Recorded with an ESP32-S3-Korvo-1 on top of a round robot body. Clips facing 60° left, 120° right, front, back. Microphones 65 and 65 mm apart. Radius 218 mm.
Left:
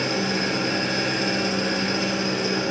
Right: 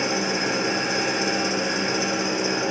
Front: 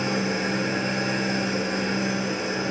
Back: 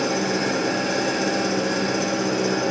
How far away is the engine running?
About 5.5 m.